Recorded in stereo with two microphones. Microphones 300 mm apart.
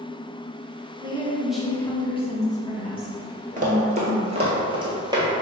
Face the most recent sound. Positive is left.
turn(degrees=-10)  # may be behind; listen again after turning